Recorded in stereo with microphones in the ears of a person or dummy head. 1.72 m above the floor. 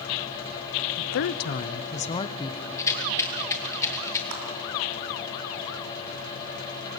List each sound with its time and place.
1.0 s a woman speaking: 65° left (ahead or behind), 0.7 m; by 2.6 s 20° left (ahead or behind), 1.3 m
2.8 s a rattle: 15° left (ahead or behind), 2.5 m
4.3 s a clap: 85° right, 5.5 m